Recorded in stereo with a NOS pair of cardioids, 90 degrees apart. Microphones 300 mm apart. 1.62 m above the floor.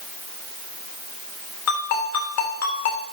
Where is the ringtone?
60° left, 3.5 m.